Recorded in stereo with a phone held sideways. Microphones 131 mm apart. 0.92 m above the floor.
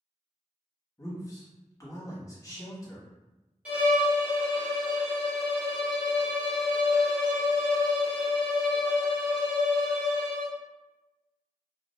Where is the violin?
10° right (ahead or behind), 0.7 m.